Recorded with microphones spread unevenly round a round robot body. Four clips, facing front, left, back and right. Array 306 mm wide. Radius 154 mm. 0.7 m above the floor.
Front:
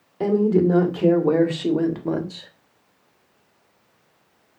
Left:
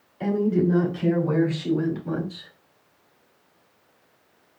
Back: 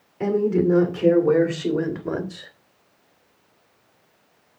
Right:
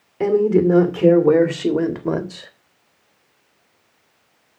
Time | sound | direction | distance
0.2 | a woman speaking | 65° right | 3 m